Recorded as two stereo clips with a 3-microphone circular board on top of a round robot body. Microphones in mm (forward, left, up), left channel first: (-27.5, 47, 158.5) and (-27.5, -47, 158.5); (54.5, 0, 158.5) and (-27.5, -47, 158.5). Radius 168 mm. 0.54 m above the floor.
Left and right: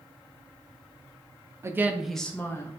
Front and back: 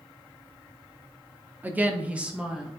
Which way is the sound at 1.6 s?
100° right.